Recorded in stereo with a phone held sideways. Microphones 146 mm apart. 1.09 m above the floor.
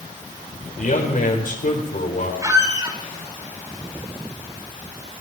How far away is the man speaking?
About 4.5 m.